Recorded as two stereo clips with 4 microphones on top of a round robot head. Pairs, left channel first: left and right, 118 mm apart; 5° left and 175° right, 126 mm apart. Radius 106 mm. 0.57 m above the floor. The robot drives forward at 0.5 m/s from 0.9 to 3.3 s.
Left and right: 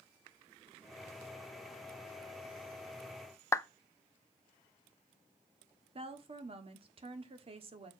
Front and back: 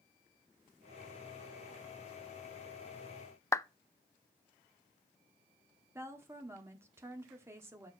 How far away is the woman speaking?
About 1.2 m.